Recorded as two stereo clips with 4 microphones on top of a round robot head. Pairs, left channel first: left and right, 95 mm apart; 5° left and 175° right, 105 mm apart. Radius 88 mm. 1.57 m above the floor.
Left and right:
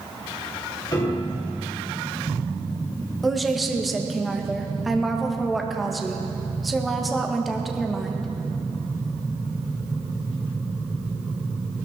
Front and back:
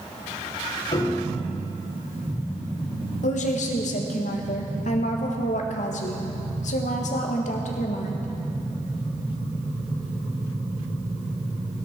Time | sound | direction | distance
0.9 | a piano | 45° left | 4.5 m
3.2 | a woman speaking | straight ahead | 1.6 m